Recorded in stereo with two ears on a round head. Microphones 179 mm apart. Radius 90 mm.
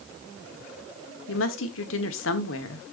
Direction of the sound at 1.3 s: 70° left (ahead or behind).